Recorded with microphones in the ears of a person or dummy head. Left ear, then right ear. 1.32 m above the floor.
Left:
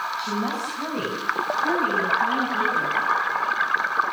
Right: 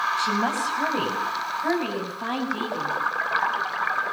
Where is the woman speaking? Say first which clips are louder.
Right 3 dB; 35° right (ahead or behind), 7.5 m; by 3.0 s 40° right (ahead or behind), 9.5 m.